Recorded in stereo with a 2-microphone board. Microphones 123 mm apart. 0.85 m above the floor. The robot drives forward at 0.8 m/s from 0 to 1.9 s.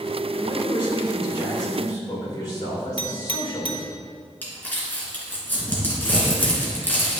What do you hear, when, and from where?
0.3 s a man speaking: 50° left (ahead or behind), 3 m; by 3.9 s 35° left (ahead or behind), 3.5 m
3.0 s a clink: 45° left (ahead or behind), 0.9 m
4.4 s crumpling: 15° left (ahead or behind), 2.5 m